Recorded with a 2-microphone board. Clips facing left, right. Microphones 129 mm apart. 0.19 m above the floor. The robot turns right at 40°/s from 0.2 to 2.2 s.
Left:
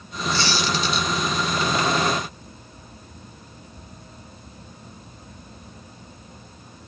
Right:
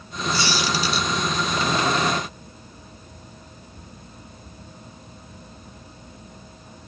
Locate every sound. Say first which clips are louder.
0.3 s a squeak: even; 15° right (ahead or behind), 0.9 m; by 1.1 s centre (ahead or behind), 0.9 m